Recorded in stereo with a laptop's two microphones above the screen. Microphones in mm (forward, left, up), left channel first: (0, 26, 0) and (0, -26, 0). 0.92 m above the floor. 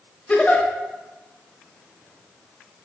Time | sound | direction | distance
0.3 | a giggle | 20° left (ahead or behind) | 0.9 m